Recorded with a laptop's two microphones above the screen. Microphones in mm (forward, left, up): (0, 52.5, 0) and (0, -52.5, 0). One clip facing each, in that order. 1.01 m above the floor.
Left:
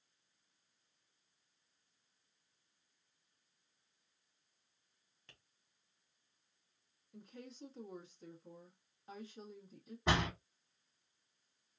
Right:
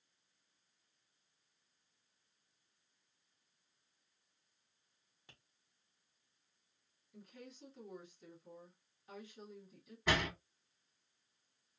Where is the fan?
No fan in this recording.